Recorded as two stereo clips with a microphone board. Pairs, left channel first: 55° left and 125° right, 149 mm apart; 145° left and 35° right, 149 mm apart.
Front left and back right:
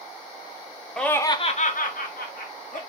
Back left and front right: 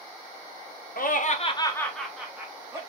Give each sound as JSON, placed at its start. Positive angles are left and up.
{"t": 1.0, "sound": "laughter", "azimuth_deg": 145, "distance_m": 0.9}